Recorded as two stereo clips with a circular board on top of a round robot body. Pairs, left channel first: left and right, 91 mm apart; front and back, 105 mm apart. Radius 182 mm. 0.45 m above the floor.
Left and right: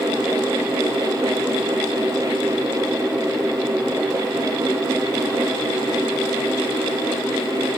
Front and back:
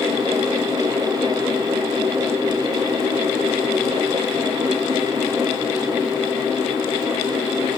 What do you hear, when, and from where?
Only background noise.